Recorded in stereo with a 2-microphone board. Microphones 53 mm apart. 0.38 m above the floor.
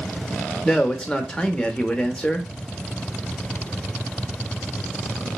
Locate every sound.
0.7 s a man speaking: 15° left (ahead or behind), 0.8 m